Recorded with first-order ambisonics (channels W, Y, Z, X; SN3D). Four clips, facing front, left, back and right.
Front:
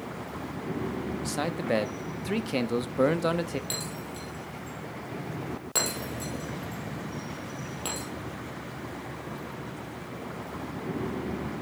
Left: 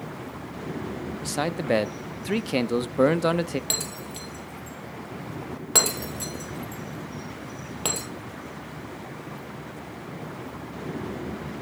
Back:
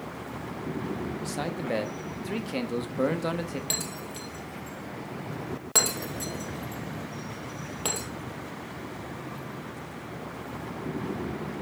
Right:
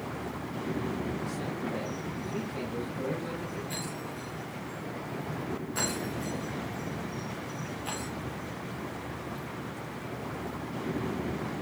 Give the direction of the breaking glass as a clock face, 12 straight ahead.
8 o'clock.